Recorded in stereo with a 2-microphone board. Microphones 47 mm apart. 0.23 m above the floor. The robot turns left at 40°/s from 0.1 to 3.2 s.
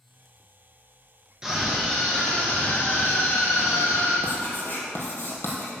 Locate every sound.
1.4 s a scream: 165° right, 4.5 m; by 4.1 s 125° left, 4.5 m
4.2 s writing: 50° left (ahead or behind), 3 m